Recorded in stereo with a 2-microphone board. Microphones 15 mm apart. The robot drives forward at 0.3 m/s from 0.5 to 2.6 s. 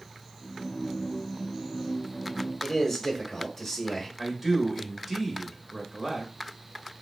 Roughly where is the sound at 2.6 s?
Centre.